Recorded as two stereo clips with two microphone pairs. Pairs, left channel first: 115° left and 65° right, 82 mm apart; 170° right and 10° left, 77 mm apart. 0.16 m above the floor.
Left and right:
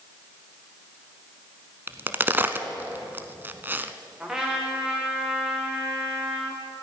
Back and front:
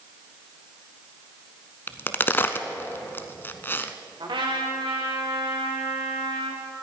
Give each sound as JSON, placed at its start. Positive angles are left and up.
{"t": 1.9, "sound": "a crack", "azimuth_deg": -120, "distance_m": 0.8}
{"t": 4.2, "sound": "a trumpet", "azimuth_deg": 20, "distance_m": 3.0}